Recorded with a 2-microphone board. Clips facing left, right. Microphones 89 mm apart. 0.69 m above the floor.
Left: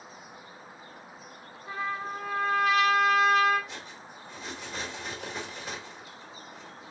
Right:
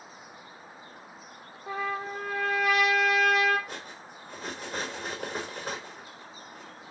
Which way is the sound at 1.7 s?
60° right (ahead or behind).